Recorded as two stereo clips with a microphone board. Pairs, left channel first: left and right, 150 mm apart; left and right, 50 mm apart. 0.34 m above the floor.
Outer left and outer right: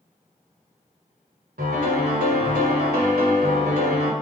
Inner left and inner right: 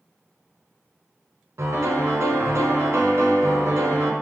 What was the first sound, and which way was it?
A piano, 85° right.